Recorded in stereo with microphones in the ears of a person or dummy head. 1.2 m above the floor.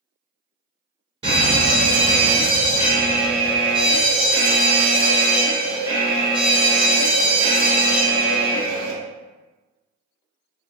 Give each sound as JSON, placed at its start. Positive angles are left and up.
{"t": 1.2, "sound": "a fire alarm", "side_deg": -30, "distance_m": 1.4}